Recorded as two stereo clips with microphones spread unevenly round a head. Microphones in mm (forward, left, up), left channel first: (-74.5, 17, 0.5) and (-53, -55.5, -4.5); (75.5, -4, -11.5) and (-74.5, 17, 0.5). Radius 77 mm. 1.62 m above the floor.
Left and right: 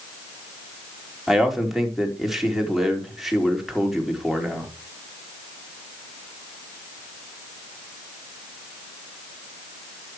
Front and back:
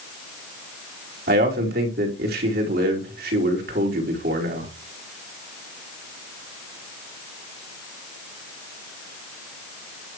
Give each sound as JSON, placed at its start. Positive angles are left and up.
{"t": 1.3, "sound": "a man speaking", "azimuth_deg": -160, "distance_m": 5.0}